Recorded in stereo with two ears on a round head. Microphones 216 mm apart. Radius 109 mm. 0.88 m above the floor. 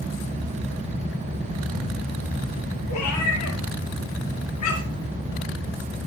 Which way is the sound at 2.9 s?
75° left (ahead or behind).